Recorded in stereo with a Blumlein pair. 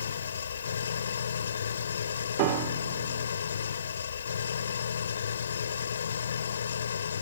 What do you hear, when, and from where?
0.0 s an engine running: 70° left
2.4 s a piano: 45° right